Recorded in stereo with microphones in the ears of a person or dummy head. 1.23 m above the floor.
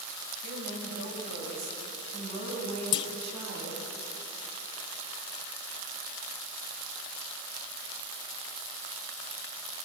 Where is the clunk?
30° left (ahead or behind), 0.7 m.